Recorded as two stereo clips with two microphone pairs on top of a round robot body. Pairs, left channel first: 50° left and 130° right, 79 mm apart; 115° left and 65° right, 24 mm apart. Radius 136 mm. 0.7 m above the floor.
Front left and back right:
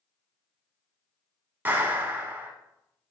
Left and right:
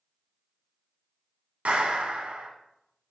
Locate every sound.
1.6 s a clap: 65° right, 2 m